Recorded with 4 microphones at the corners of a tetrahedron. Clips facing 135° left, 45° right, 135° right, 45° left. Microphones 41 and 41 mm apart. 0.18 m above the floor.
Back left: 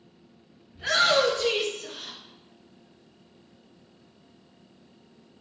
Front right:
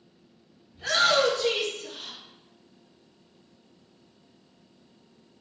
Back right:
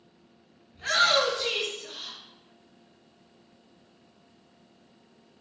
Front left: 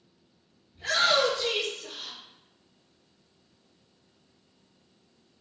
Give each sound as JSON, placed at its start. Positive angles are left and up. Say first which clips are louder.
{"t": 0.7, "sound": "a shout", "louder": "back left 1 dB, back right 1 dB", "azimuth_deg": -155, "distance_m": 1.8}